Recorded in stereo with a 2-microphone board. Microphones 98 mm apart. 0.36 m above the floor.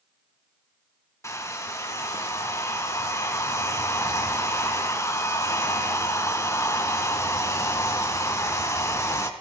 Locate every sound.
1.2 s a hair dryer: 30° left (ahead or behind), 1.1 m